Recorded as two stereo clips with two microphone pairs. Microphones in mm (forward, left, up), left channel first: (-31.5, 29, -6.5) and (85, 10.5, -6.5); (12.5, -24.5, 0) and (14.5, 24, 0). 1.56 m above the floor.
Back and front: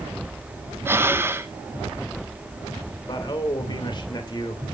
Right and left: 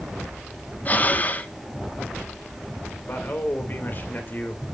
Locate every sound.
0.8 s breathing: 65° right, 0.8 m
3.1 s a man speaking: 140° right, 2.5 m